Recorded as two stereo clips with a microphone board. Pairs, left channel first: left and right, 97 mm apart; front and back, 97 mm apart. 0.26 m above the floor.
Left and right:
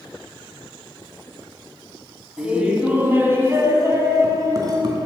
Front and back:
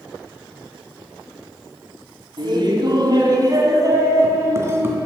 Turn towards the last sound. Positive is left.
turn(degrees=-120)